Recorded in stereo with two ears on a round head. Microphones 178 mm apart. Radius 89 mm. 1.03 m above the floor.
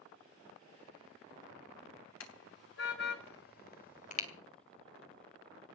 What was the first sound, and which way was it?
A car horn, 65° left (ahead or behind).